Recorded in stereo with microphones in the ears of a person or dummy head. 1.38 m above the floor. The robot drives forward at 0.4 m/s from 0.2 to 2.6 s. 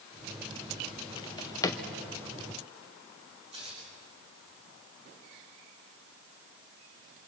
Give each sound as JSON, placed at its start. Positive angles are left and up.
{"t": 1.2, "sound": "a drawer", "side_deg": 20, "distance_m": 0.6}
{"t": 3.5, "sound": "tearing paper", "side_deg": -35, "distance_m": 5.5}